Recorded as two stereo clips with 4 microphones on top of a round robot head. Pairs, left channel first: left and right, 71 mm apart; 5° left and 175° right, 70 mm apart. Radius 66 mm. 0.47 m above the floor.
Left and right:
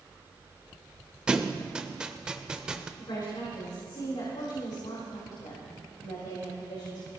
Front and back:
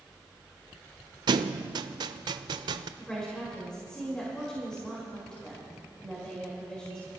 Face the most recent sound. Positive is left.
turn(degrees=85)